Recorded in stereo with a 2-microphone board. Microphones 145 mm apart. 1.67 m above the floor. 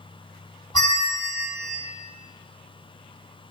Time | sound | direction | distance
0.7 | a bell | 30° left (ahead or behind) | 2.0 m